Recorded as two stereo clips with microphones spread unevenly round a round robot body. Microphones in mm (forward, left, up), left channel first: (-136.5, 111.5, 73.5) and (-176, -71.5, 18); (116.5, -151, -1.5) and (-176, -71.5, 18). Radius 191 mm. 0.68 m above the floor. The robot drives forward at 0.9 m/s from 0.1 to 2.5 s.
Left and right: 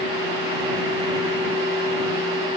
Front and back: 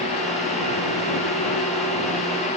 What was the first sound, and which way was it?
Only background noise.